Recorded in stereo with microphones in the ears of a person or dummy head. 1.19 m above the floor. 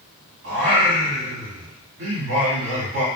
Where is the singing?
55° right (ahead or behind), 2 m.